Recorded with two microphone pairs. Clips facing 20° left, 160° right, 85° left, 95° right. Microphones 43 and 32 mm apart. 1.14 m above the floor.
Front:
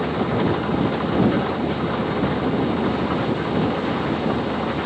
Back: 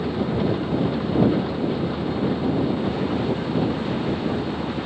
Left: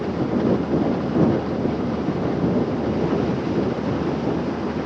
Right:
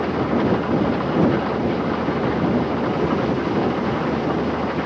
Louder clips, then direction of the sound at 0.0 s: Front 2 dB, right 2 dB; 40° right.